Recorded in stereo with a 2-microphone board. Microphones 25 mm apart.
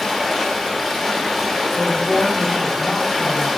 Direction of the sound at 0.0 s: 5° right (ahead or behind).